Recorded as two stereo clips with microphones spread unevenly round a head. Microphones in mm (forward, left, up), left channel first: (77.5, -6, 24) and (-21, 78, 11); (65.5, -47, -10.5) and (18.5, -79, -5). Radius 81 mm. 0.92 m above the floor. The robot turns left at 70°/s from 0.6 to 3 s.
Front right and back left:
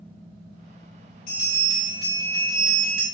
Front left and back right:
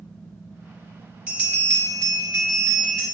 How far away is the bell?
About 3 m.